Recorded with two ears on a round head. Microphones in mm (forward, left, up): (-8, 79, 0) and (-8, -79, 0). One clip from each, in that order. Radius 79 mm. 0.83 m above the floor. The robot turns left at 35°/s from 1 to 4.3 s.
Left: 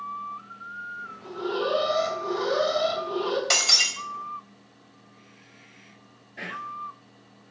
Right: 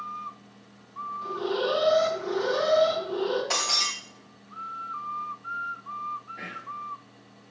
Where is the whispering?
35° left (ahead or behind), 0.5 m.